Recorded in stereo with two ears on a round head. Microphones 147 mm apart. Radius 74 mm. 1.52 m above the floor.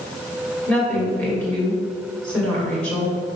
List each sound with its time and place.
0.7 s a woman speaking: 10° left (ahead or behind), 2 m